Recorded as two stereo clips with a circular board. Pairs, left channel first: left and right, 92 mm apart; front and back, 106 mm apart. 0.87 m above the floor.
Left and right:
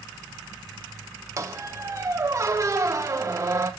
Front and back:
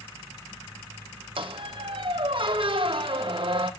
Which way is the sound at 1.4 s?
145° right.